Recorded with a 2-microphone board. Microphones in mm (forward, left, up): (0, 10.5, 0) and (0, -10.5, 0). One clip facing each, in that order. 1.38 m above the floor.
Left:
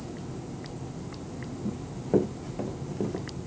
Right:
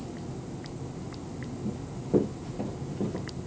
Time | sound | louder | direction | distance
1.6 | running footsteps | left 2 dB | 45° left (ahead or behind) | 4.5 m